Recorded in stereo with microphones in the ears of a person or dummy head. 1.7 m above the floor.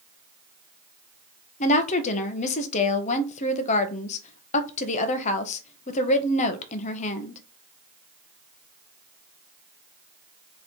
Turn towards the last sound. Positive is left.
turn(degrees=40)  # may be behind; listen again after turning